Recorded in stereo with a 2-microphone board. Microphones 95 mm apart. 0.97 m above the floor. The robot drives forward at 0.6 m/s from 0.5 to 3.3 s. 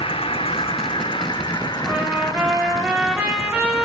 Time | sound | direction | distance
0.0 | an insect | 75° left (ahead or behind) | 1.3 m
1.9 | a trumpet | 15° right (ahead or behind) | 5 m